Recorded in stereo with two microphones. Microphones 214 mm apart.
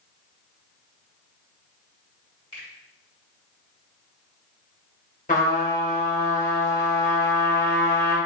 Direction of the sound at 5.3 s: 40° left (ahead or behind).